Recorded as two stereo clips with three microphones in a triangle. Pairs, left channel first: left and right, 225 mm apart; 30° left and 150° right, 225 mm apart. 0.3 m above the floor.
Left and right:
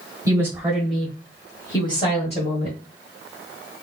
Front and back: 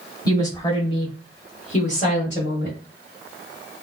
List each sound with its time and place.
0.2 s a woman speaking: 30° right, 1.4 m; by 2.8 s 60° left, 1.7 m